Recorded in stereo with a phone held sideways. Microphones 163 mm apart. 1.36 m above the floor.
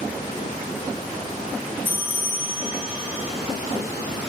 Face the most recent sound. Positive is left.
turn(degrees=-10)  # may be behind; listen again after turning